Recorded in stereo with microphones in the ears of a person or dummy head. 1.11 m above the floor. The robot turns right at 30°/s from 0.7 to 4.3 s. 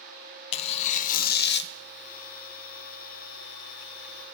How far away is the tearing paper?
About 0.5 m.